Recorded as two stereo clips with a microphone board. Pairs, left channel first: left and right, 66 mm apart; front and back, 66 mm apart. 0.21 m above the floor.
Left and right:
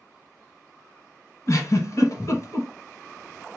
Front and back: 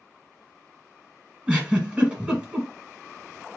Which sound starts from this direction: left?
A giggle, at 1.5 s.